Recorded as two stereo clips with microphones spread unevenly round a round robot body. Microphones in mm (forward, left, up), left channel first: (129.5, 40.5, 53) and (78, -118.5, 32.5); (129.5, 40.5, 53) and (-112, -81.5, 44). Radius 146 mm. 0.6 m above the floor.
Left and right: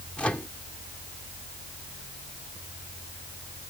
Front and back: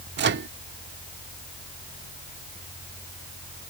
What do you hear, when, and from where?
0.2 s a microwave: 160° left